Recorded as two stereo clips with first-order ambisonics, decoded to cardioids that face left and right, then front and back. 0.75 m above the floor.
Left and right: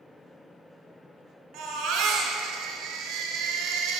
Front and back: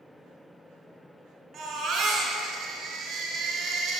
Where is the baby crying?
125° right, 1.7 m.